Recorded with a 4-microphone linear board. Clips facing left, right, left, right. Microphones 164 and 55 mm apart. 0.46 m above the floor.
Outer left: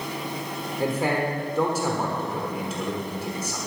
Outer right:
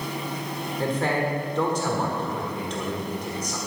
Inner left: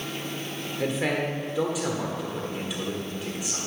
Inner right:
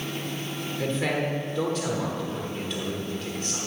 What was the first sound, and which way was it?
A man speaking, 10° left (ahead or behind).